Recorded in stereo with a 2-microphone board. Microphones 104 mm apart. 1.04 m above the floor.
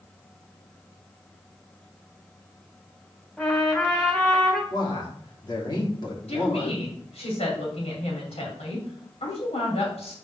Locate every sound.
3.4 s a trumpet: 10° left (ahead or behind), 1.9 m
4.7 s a man speaking: 45° left (ahead or behind), 3 m
6.3 s a woman speaking: 80° left, 3 m